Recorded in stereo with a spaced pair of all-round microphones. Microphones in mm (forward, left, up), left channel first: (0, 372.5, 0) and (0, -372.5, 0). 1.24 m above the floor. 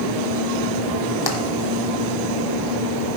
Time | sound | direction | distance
1.3 | tapping | 30° left (ahead or behind) | 1.3 m